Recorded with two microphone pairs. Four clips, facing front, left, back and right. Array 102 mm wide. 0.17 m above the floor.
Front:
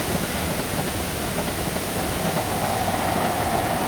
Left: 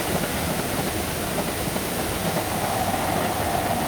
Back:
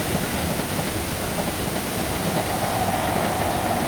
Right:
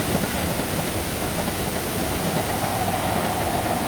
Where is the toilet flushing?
I don't hear a toilet flushing.